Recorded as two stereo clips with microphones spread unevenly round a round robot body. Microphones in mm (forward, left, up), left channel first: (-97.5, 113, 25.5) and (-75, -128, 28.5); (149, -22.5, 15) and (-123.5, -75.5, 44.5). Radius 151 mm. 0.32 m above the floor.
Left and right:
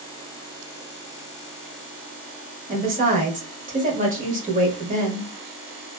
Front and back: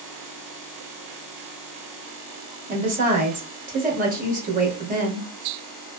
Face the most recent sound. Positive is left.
turn(degrees=-120)